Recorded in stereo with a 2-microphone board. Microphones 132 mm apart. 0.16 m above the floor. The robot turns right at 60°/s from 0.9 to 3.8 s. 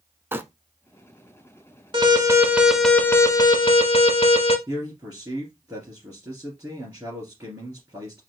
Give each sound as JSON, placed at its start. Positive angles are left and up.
{"t": 0.3, "sound": "crumpling", "side_deg": -15, "distance_m": 0.5}
{"t": 1.9, "sound": "an alarm", "azimuth_deg": -50, "distance_m": 1.1}
{"t": 4.7, "sound": "a man speaking", "side_deg": -20, "distance_m": 2.5}